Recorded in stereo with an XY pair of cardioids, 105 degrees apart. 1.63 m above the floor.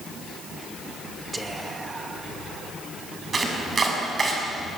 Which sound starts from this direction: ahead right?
Chopping, at 3.3 s.